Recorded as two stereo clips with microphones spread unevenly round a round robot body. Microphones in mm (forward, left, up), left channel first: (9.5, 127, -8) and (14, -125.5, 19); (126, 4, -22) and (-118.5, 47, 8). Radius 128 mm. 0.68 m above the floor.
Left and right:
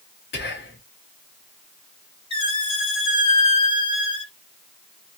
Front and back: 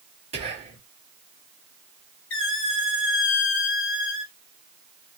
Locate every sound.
0.3 s whispering: 105° left, 1.6 m
2.3 s a squeak: 25° left, 1.4 m